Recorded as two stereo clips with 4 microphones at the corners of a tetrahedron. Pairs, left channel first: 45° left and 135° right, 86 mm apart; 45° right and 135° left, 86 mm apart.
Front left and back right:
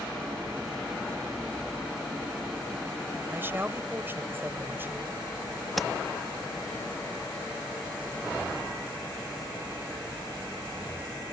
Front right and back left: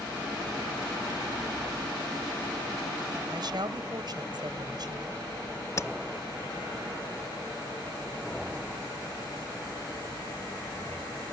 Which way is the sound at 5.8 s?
45° right.